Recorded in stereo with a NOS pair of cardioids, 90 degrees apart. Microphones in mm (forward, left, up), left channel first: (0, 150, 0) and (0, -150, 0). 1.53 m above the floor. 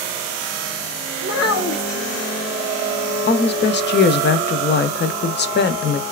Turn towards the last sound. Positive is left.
turn(degrees=35)